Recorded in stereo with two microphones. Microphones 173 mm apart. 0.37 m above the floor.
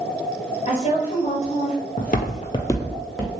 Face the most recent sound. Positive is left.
turn(degrees=-5)  # may be behind; listen again after turning